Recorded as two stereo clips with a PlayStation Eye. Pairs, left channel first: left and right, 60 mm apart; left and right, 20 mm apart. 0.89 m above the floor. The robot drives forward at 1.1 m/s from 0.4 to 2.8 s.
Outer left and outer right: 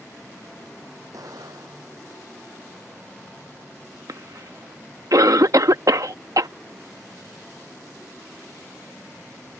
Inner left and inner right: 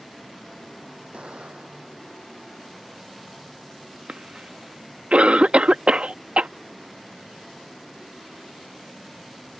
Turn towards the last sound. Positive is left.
turn(degrees=-65)  # may be behind; listen again after turning